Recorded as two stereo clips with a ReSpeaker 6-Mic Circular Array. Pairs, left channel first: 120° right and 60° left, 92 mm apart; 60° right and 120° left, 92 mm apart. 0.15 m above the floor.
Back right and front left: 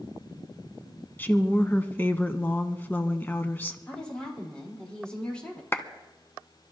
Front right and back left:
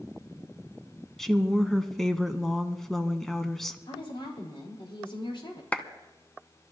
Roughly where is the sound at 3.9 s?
Ahead right.